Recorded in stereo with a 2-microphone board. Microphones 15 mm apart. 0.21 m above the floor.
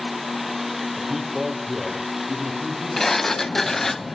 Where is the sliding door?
20° left (ahead or behind), 0.5 m.